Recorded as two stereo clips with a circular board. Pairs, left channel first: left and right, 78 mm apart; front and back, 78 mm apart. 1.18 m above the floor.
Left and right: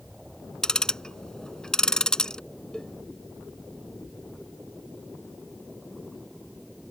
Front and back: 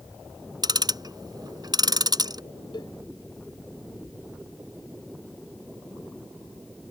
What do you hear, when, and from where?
0.6 s ticking: 170° left
2.7 s a cowbell: 10° left